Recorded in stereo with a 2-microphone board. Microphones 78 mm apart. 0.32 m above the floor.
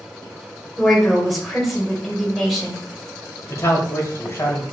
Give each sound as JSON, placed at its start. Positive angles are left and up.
{"t": 0.8, "sound": "a woman speaking", "side_deg": 0, "distance_m": 1.5}
{"t": 3.5, "sound": "a man speaking", "side_deg": 35, "distance_m": 1.4}